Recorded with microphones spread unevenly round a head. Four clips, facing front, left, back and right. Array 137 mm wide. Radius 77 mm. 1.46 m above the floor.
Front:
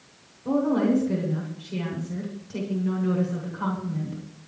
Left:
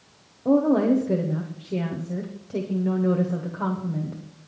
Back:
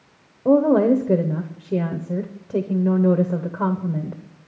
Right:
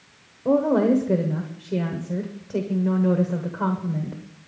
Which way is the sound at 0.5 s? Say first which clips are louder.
Even, back 7 dB; straight behind.